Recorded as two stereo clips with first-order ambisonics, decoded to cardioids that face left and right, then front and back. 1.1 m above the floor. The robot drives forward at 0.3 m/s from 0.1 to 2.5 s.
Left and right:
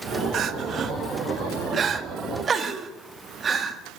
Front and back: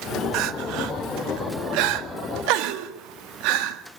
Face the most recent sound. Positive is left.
turn(degrees=-160)